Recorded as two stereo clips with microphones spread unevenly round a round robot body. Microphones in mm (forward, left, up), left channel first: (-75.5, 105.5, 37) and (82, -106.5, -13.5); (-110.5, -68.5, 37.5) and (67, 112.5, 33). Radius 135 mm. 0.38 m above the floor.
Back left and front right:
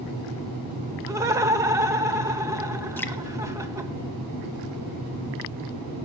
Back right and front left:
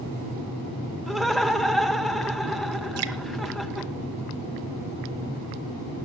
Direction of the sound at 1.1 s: 40° right.